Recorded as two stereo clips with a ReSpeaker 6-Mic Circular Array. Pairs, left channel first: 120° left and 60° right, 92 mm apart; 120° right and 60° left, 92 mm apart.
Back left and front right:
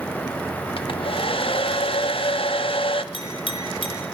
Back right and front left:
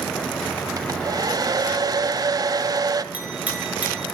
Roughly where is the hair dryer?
Left.